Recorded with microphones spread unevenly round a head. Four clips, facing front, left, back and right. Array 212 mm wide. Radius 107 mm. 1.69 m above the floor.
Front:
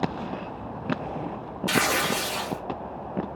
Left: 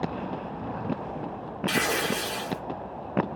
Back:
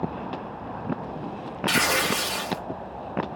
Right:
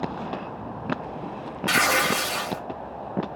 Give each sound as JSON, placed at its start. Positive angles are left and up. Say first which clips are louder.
{"t": 1.7, "sound": "tearing paper", "louder": "right 5 dB, even", "azimuth_deg": -120, "distance_m": 1.4}